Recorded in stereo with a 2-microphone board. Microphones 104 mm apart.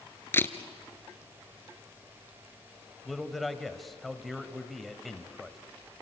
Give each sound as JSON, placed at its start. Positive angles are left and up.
{"t": 0.3, "sound": "a camera shutter", "side_deg": 20, "distance_m": 1.0}
{"t": 3.0, "sound": "a man speaking", "side_deg": 0, "distance_m": 1.4}